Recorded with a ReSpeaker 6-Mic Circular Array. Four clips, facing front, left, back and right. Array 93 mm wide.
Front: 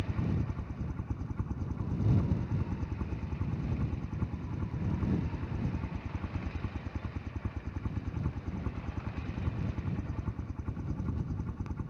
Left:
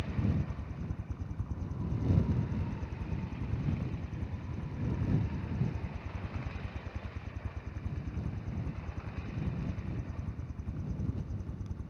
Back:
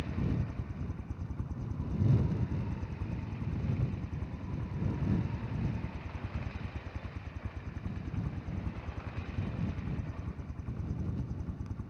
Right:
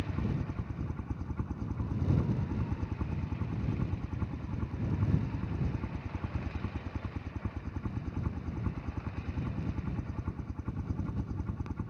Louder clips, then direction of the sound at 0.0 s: Even, front 1 dB; 55° right.